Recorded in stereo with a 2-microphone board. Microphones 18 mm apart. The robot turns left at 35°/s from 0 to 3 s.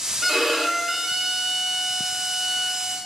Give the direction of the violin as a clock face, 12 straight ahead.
12 o'clock.